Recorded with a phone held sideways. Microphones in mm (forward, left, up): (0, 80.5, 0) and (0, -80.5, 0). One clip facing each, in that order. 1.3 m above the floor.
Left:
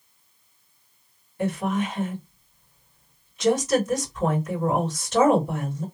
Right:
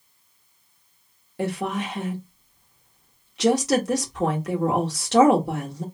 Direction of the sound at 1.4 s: 80° right.